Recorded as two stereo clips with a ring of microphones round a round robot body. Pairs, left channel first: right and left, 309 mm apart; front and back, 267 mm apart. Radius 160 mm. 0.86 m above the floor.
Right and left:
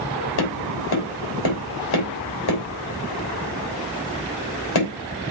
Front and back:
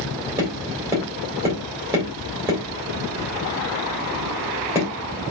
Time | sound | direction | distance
0.4 | tapping | 100° right | 3 m